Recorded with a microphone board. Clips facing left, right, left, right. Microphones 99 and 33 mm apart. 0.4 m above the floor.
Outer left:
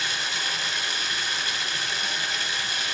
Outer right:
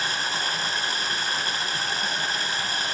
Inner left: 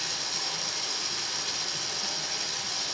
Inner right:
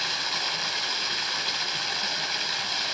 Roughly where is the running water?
Right.